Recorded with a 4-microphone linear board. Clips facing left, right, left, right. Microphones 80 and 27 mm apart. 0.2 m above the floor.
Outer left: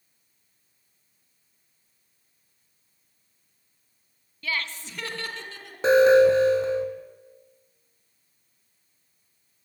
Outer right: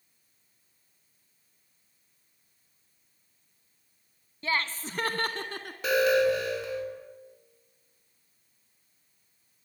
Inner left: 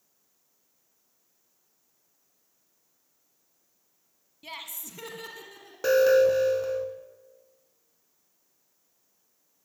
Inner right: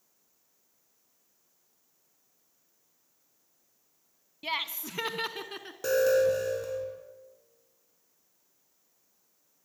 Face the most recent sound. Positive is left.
turn(degrees=30)  # may be behind; listen again after turning